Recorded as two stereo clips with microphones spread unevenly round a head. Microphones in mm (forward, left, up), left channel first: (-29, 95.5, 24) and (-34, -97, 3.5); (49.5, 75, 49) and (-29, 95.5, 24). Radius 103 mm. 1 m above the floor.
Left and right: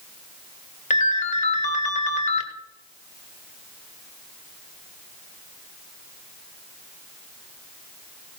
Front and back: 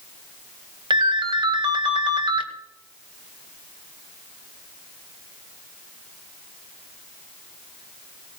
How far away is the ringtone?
About 1.7 m.